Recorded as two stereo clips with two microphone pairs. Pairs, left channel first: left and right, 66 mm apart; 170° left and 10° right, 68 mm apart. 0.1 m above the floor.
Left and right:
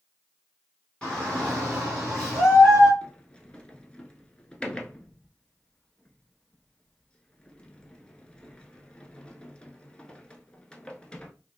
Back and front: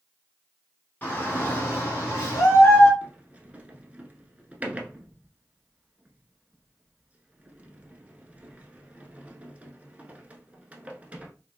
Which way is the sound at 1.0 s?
150° left.